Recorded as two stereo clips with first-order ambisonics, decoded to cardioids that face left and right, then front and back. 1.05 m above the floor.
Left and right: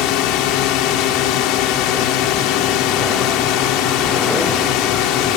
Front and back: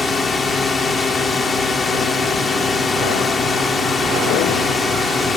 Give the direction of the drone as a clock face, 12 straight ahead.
9 o'clock.